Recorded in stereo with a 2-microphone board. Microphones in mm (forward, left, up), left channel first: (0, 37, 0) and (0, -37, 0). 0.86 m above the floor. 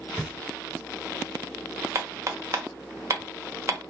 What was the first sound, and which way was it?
Knocking, 5° right (ahead or behind).